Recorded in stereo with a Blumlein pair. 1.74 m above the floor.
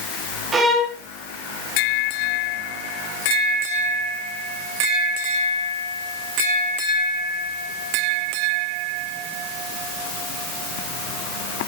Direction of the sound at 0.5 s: 20° right.